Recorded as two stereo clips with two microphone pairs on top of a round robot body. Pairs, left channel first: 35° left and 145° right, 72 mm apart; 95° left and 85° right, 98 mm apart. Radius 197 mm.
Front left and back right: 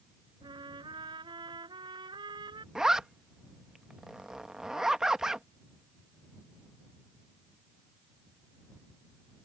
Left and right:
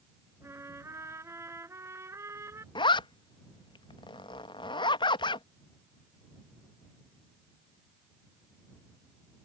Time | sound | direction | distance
0.4 | a trumpet | 145° right | ?
2.8 | a zipper | 135° left | ?